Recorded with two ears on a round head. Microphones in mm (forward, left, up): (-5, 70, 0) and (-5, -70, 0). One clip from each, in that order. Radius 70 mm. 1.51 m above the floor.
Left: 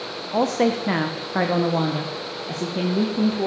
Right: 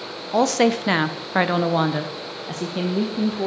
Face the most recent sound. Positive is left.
turn(degrees=-20)  # may be behind; listen again after turning